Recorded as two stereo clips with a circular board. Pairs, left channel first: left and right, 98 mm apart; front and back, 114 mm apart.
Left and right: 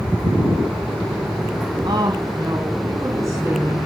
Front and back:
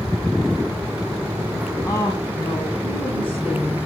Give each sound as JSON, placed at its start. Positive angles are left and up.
{"t": 1.9, "sound": "a woman speaking", "azimuth_deg": -60, "distance_m": 2.5}